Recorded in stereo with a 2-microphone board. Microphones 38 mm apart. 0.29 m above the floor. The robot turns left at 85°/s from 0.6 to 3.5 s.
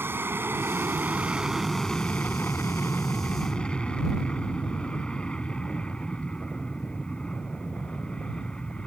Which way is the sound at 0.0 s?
90° right.